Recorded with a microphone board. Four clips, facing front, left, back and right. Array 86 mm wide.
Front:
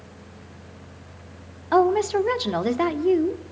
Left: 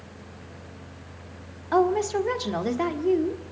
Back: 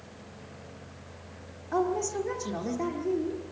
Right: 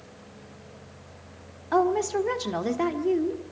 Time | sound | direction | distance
1.7 | a woman speaking | straight ahead | 1.6 m